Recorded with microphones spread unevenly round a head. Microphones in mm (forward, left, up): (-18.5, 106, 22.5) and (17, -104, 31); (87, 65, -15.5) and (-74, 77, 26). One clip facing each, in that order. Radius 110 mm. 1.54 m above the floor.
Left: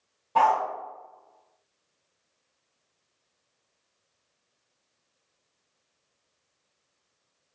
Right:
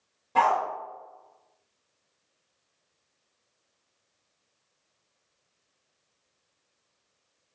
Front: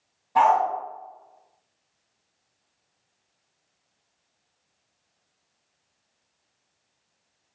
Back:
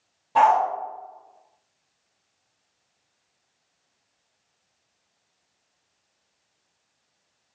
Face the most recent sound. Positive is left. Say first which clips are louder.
# left 1 dB, back 1 dB
turn(degrees=-140)